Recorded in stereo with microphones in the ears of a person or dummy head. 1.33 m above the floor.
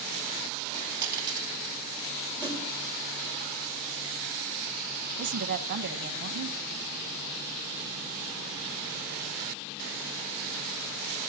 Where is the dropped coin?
15° right (ahead or behind), 2.5 m.